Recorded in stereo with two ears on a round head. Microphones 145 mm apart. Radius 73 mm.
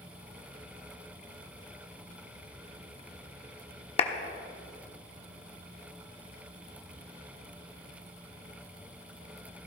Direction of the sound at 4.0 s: 40° left (ahead or behind).